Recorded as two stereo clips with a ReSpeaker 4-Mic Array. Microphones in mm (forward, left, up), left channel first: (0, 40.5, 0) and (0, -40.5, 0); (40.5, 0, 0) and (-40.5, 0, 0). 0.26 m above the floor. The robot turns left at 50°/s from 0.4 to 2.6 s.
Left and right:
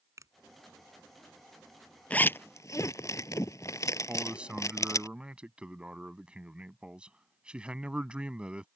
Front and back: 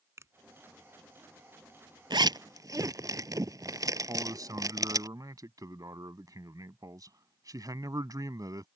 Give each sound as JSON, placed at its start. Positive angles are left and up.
{"t": 0.2, "sound": "a finger snap", "azimuth_deg": -130}
{"t": 2.1, "sound": "a zipper", "azimuth_deg": 165}
{"t": 4.1, "sound": "a man speaking", "azimuth_deg": -165}